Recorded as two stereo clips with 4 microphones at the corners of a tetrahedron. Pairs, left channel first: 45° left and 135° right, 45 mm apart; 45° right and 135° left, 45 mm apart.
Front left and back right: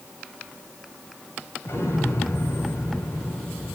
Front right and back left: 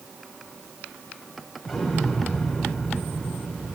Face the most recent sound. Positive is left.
turn(degrees=45)